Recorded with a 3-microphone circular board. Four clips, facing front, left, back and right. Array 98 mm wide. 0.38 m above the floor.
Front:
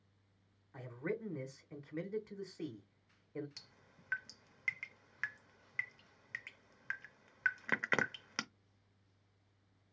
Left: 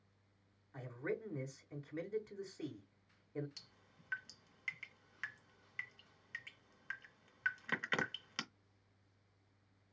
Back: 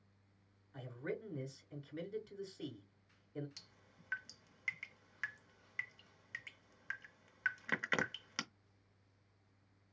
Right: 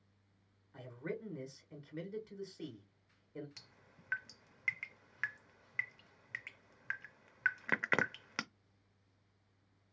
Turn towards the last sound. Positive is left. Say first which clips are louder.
# right 4 dB, front 1 dB
turn(degrees=-60)